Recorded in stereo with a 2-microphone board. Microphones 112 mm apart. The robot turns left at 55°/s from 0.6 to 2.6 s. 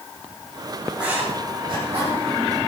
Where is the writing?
5° right (ahead or behind), 6 m; by 2.2 s 75° right (ahead or behind), 6 m.